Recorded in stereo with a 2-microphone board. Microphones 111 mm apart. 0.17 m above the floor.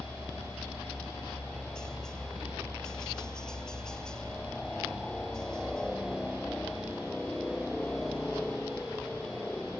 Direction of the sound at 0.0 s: 5° left (ahead or behind).